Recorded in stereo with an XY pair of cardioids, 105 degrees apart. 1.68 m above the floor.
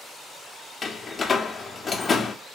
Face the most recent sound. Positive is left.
turn(degrees=30)